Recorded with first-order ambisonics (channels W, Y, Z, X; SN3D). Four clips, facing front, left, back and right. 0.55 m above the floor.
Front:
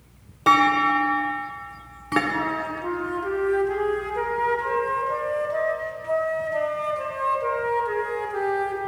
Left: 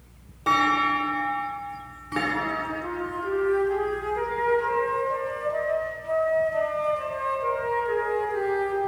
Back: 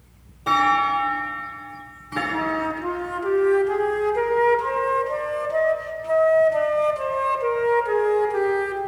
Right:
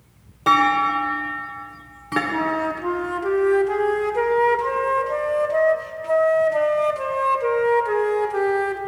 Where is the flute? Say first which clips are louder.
Right 5 dB, back 2 dB; 110° right, 0.5 m.